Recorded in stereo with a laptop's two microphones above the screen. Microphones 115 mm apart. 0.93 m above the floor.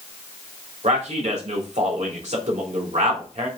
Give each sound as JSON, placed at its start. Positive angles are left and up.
{"t": 0.8, "sound": "a man speaking", "side_deg": -65, "distance_m": 3.0}